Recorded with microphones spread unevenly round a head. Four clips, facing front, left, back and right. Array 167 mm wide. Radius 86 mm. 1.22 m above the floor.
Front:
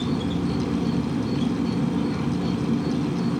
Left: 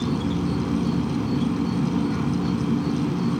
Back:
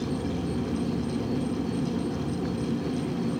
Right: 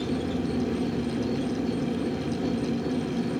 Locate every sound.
0.0 s an insect: 55° left